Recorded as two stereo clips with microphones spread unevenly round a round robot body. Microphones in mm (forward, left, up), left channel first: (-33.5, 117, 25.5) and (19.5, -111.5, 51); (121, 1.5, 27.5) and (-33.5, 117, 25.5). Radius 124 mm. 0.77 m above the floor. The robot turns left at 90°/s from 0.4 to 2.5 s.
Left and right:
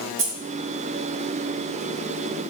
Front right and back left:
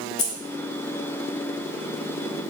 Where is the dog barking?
I don't hear a dog barking.